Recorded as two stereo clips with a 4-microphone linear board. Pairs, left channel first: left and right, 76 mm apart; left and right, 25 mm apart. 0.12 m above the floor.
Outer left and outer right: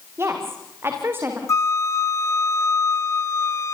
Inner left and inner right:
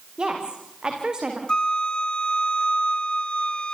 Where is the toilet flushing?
No toilet flushing in this recording.